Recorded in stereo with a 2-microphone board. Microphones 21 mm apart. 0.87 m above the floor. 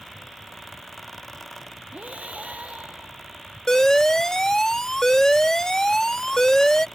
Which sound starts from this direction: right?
Breathing, at 1.9 s.